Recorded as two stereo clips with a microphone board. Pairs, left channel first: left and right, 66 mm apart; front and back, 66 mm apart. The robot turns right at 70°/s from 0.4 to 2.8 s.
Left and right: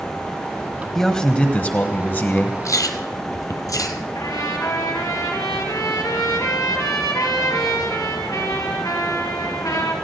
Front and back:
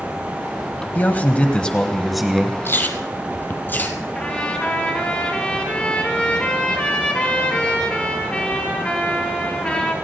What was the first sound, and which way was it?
A man speaking, 10° left.